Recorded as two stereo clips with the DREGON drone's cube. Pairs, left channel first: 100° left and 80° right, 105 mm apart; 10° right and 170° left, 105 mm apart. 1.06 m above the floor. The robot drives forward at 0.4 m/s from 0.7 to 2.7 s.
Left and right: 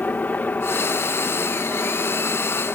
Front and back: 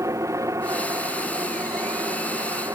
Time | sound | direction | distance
0.0 | a helicopter | 155° left | ?